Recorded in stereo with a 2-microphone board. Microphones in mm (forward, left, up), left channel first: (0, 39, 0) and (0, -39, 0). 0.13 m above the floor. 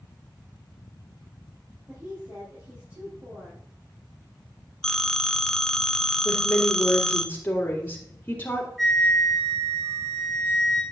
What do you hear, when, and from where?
1.9 s a woman speaking: 30° right (ahead or behind), 4 m
4.8 s a phone ringing: 5° left (ahead or behind), 0.6 m
6.2 s a woman speaking: 25° left (ahead or behind), 3.5 m
8.8 s a flute: centre (ahead or behind), 2.5 m